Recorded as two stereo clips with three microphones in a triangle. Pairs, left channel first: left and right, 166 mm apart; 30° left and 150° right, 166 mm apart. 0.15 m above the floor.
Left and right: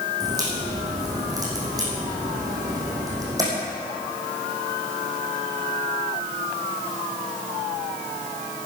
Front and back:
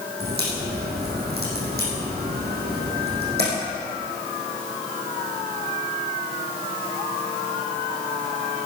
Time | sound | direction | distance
0.2 | a crack | 160° right | 5 m